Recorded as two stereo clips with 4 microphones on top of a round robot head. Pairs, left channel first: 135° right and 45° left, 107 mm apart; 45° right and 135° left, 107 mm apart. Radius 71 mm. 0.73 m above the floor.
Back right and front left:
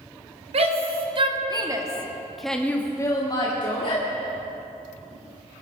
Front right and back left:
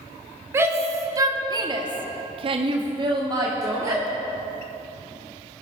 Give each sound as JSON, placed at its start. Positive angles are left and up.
{"t": 0.5, "sound": "a shout", "azimuth_deg": 65, "distance_m": 2.5}